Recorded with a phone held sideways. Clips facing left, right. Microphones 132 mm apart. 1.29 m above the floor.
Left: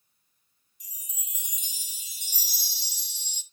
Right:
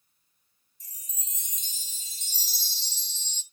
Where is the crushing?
I don't hear crushing.